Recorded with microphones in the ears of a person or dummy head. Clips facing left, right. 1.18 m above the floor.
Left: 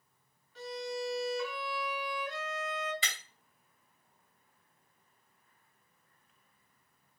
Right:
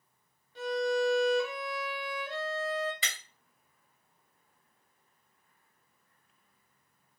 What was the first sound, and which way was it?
A violin, 25° right (ahead or behind).